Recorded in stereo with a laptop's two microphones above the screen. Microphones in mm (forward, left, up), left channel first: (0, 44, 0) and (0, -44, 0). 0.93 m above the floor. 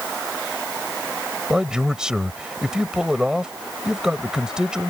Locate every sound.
1.5 s a man speaking: 10° right (ahead or behind)